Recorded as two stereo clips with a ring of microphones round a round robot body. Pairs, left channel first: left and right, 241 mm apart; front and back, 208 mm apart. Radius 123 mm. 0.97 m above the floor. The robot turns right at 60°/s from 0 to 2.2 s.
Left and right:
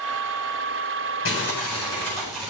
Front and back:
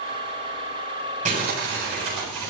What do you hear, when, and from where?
1.2 s crumpling: 125° left, 8 m; by 2.5 s 175° right, 8 m